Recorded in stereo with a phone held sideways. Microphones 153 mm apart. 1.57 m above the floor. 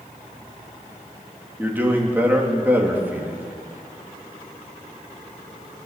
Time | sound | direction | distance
1.6 | a man speaking | 10° right (ahead or behind) | 3.5 m